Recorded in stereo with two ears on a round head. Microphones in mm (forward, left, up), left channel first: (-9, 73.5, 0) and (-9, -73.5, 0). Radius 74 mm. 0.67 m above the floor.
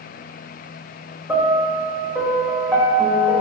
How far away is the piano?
About 0.6 m.